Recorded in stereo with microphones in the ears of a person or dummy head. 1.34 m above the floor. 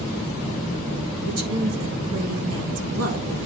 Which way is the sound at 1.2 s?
45° right (ahead or behind).